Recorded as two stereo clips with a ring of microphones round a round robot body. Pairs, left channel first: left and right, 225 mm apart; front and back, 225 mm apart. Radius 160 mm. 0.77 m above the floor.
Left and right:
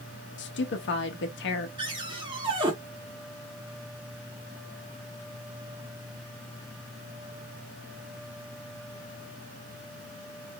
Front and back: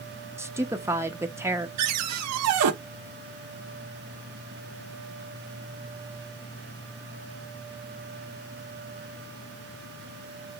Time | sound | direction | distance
0.4 | a woman speaking | 105° left | 0.9 m
1.8 | a cupboard door | 165° right | 0.6 m